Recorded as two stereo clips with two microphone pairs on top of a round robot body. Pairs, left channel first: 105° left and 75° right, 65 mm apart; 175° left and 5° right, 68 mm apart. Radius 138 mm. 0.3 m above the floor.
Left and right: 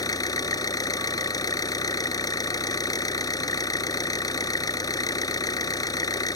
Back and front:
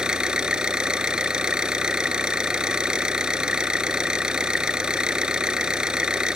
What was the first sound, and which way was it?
An engine running, 75° left.